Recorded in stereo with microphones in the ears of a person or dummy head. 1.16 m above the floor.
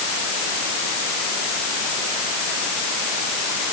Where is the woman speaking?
No woman speaking in this recording.